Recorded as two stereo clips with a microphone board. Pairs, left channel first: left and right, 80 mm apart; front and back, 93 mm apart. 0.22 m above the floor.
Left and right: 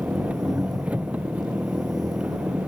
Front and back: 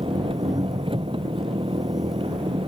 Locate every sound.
0.0 s an engine running: 165° right